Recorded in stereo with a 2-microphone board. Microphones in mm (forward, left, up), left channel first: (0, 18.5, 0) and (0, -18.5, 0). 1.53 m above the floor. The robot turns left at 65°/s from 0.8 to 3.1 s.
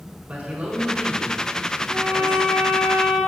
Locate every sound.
0.3 s a man speaking: 145° right, 1.8 m; by 2.9 s 80° left, 1.8 m
1.9 s a violin: straight ahead, 1.9 m; by 3.2 s 80° right, 1.9 m